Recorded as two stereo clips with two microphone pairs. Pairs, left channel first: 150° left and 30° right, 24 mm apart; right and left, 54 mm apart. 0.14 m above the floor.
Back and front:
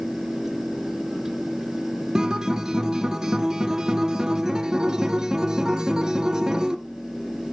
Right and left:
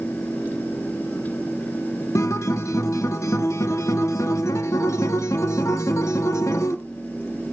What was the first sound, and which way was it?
A guitar, 90° right.